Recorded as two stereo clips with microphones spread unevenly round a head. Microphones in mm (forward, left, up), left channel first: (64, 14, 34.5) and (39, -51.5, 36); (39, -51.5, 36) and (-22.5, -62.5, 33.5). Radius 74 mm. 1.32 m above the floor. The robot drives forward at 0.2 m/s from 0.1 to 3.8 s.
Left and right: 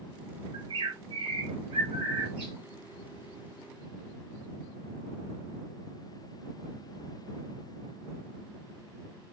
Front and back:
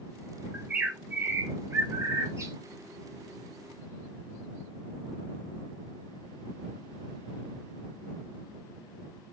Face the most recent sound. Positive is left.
turn(degrees=-140)